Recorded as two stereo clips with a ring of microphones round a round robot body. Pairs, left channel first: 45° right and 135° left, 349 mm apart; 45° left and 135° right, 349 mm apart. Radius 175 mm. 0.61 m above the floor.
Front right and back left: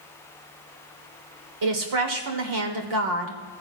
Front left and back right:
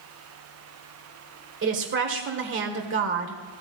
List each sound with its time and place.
1.6 s a woman speaking: 170° left, 1.7 m